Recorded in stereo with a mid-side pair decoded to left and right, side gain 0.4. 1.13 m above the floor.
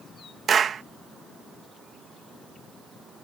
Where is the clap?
55° right.